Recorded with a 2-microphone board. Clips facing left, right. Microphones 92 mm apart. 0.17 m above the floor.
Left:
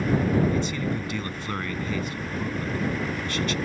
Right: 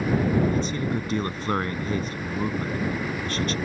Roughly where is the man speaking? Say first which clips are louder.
Right 1 dB; right.